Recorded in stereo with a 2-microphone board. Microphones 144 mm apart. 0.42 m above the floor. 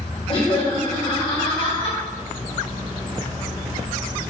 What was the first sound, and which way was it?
Laughter, 40° left (ahead or behind).